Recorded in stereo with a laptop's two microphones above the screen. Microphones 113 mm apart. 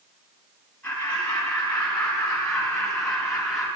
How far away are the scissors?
I don't hear scissors.